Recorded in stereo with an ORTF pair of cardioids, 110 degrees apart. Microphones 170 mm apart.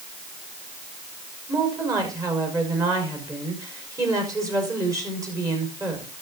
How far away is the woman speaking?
About 5 m.